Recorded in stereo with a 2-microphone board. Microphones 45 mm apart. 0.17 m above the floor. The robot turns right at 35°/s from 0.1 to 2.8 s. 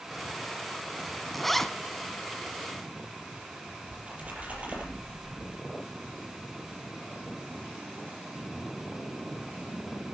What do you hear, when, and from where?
1.3 s a zipper: 5° left (ahead or behind), 1.2 m; by 1.7 s 10° left (ahead or behind), 1.2 m
3.9 s a splash: 30° right (ahead or behind), 5.5 m